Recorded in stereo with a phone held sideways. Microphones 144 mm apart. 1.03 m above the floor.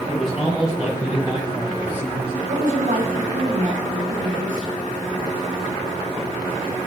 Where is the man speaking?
5° right (ahead or behind), 5.5 m; by 2.3 s 20° right (ahead or behind), 5 m.